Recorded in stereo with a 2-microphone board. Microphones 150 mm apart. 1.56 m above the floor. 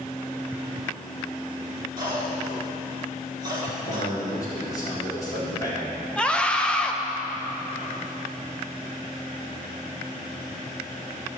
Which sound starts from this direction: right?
A cough, at 2.0 s.